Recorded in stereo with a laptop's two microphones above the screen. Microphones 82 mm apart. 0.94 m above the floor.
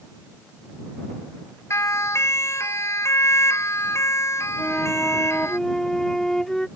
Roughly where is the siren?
Left.